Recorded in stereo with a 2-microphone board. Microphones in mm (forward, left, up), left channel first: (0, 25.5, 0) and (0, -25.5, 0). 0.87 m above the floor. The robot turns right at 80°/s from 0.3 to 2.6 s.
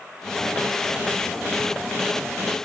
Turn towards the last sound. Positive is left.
No sound to turn to.